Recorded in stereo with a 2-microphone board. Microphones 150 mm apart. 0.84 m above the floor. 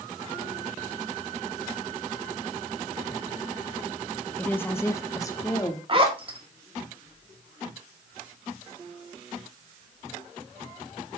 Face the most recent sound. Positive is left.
turn(degrees=-35)  # may be behind; listen again after turning